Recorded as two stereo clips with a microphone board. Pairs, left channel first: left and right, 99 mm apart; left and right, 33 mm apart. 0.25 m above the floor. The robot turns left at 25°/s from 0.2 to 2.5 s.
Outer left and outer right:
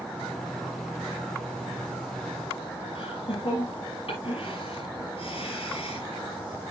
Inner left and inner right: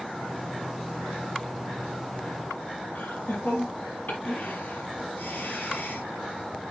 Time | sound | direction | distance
3.0 | laughter | 65° left (ahead or behind) | 6 m